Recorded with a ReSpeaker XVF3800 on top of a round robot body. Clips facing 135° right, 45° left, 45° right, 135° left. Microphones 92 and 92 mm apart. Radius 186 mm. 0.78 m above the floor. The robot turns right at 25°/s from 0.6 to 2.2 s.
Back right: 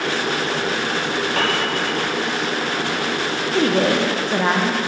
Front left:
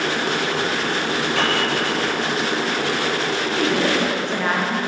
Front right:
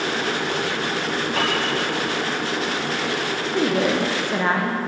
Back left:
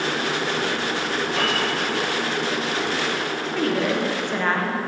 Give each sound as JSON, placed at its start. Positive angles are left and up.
{"t": 1.4, "sound": "a piano", "azimuth_deg": -85, "distance_m": 1.0}
{"t": 3.5, "sound": "a woman speaking", "azimuth_deg": -115, "distance_m": 0.9}